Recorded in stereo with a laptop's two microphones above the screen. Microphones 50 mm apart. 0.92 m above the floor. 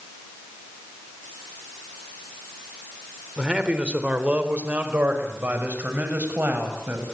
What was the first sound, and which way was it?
A man speaking, 20° right (ahead or behind).